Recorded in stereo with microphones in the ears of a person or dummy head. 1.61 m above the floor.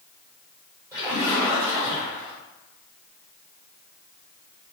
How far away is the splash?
About 1.6 m.